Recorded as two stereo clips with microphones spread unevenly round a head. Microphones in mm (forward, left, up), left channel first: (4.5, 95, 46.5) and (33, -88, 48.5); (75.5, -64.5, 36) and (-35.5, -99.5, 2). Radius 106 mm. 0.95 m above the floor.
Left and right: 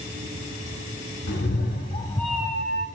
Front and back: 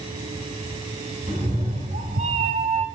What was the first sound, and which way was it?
A cat meowing, 130° left.